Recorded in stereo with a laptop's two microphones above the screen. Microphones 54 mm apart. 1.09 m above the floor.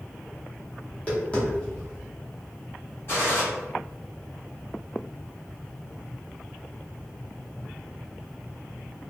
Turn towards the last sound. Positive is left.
turn(degrees=50)  # may be behind; listen again after turning